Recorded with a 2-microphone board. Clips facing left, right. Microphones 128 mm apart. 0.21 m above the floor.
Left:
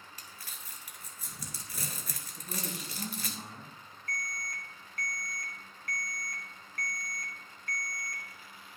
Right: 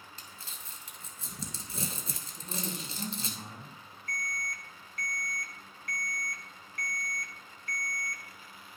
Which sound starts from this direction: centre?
A man speaking, at 2.4 s.